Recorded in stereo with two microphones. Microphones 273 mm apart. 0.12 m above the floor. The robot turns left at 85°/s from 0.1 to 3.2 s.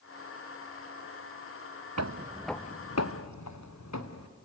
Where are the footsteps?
75° right (ahead or behind), 0.8 m; by 4.3 s 75° left (ahead or behind), 2 m.